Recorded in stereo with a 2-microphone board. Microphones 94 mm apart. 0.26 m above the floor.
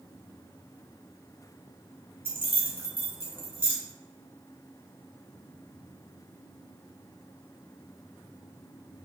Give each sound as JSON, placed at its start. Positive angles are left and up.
{"t": 2.2, "sound": "keys jangling", "side_deg": -25, "distance_m": 0.8}